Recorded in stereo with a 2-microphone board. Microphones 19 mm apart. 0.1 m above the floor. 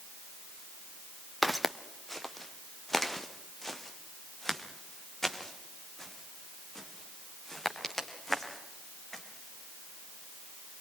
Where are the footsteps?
5° left (ahead or behind), 0.9 m; by 9.2 s 25° left (ahead or behind), 5 m.